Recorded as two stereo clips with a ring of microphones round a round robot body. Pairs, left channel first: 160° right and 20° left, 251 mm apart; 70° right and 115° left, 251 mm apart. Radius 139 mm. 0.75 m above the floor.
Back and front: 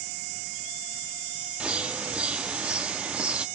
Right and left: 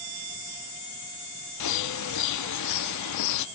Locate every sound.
1.6 s a bird: 65° right, 0.7 m